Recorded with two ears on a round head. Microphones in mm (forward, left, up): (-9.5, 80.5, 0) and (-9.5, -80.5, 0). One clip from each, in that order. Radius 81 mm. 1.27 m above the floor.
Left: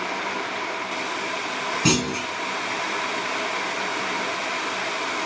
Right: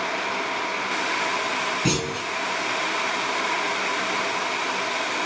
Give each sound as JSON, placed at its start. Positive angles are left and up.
{"t": 1.9, "sound": "a clunk", "side_deg": 45, "distance_m": 4.0}